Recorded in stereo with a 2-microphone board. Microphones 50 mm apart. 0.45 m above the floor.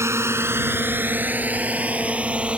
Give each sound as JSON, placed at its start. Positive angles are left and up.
{"t": 0.0, "sound": "a drone", "side_deg": -75}